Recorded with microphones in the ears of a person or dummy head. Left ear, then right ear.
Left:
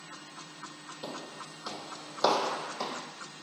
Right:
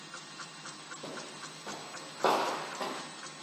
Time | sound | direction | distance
1.0 | footsteps | 40° left (ahead or behind) | 3 m